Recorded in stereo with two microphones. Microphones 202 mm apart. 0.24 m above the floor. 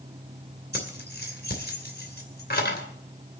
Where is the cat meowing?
I don't hear a cat meowing.